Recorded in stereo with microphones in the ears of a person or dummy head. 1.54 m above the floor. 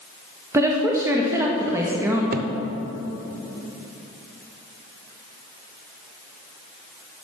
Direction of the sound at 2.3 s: 50° right (ahead or behind).